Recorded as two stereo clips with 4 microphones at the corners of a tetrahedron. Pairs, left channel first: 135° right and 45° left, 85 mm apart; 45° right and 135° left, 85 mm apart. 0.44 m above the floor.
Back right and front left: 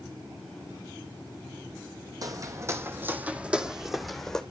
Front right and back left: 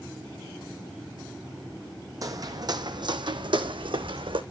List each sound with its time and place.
2.2 s footsteps: 90° left, 1.5 m; by 4.4 s 140° left, 1.7 m